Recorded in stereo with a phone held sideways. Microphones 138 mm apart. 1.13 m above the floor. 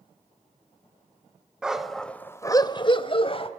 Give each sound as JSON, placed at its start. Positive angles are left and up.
{"t": 1.6, "sound": "a dog barking", "side_deg": -5, "distance_m": 1.3}